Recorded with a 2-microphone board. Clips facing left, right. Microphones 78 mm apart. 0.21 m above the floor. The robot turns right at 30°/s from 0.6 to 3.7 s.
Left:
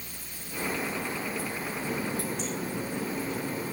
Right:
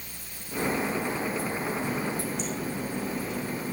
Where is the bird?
I don't hear a bird.